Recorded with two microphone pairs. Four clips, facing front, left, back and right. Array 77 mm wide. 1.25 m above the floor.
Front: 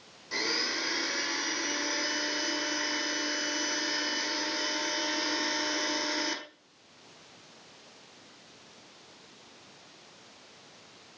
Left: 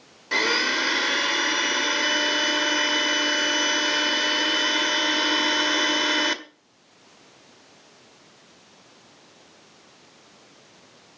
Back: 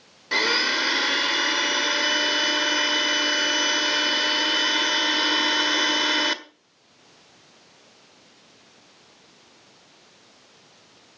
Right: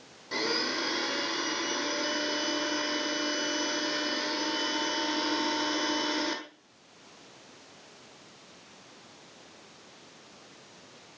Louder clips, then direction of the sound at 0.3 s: Left 8 dB, back 10 dB; 155° left.